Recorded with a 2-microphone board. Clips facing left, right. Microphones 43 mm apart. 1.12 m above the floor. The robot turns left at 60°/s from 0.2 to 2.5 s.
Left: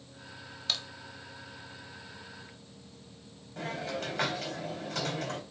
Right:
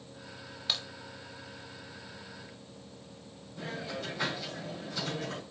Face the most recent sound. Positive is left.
turn(degrees=70)  # may be behind; listen again after turning